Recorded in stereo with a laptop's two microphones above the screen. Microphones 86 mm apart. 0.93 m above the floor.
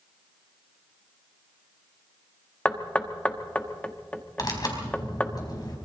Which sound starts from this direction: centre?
Knocking, at 2.6 s.